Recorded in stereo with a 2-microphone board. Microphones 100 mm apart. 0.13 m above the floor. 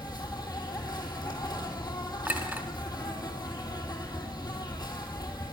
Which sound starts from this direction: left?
An insect, at 0.0 s.